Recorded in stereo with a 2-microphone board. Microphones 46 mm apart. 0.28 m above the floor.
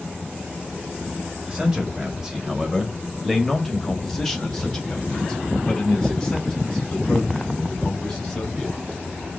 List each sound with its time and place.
1.4 s a man speaking: 15° right (ahead or behind), 1.2 m; by 8.8 s 15° left (ahead or behind), 3 m